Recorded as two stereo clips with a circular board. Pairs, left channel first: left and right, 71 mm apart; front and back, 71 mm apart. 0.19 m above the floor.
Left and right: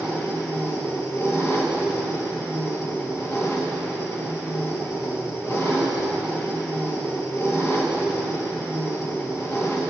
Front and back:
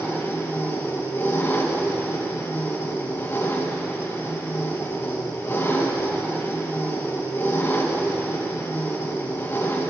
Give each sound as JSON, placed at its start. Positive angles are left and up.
{"t": 0.0, "sound": "an engine running", "azimuth_deg": 45, "distance_m": 3.0}